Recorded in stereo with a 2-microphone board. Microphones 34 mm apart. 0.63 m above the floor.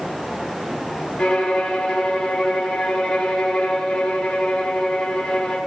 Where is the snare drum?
I don't hear a snare drum.